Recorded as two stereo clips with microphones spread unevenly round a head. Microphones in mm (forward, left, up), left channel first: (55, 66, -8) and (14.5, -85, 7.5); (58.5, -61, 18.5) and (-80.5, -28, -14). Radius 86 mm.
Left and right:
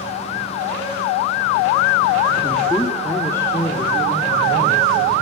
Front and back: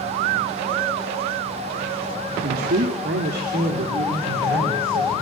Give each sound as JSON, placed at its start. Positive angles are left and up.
{"t": 2.4, "sound": "a man speaking", "azimuth_deg": 160, "distance_m": 1.7}